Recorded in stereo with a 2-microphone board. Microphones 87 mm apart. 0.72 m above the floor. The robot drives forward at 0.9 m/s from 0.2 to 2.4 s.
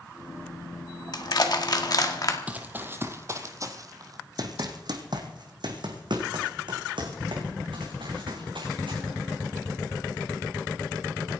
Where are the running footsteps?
15° right (ahead or behind), 1.5 m; by 9.0 s 80° right, 4.5 m.